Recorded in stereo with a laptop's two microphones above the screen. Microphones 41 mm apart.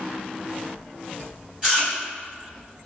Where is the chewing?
25° right (ahead or behind), 1.6 m.